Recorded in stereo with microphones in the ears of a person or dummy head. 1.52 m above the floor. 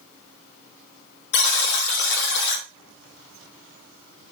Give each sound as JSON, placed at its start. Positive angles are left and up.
{"t": 1.3, "sound": "a buzzer", "side_deg": 65, "distance_m": 1.6}